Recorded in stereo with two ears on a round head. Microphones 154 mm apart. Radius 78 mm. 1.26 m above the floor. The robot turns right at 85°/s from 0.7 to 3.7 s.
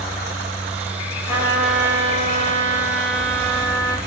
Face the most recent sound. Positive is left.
turn(degrees=-10)